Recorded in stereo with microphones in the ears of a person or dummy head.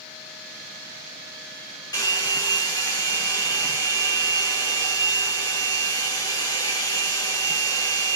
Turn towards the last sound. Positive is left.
turn(degrees=25)  # may be behind; listen again after turning